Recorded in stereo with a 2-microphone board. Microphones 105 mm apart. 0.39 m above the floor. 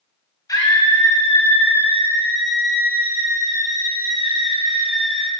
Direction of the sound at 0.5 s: 35° left (ahead or behind).